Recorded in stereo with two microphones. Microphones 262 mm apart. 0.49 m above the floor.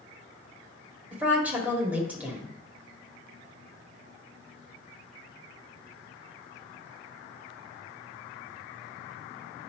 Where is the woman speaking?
5° right (ahead or behind), 1.7 m.